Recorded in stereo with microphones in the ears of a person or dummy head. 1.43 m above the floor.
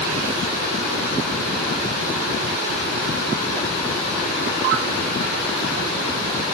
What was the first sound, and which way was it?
Only background noise.